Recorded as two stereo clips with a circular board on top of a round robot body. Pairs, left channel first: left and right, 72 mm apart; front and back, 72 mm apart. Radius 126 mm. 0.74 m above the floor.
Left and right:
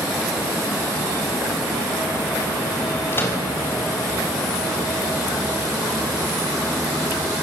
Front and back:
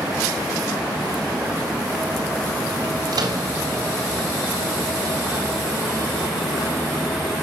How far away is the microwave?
About 3.5 m.